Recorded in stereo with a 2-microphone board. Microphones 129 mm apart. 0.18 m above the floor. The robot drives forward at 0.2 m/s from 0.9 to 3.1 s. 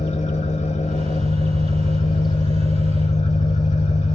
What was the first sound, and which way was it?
An engine running, 65° left (ahead or behind).